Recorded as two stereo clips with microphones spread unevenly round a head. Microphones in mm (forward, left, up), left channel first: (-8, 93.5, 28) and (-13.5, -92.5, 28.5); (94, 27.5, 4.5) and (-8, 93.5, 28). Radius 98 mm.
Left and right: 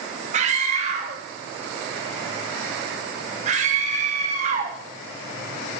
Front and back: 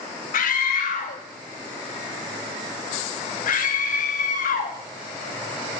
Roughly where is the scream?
Ahead right.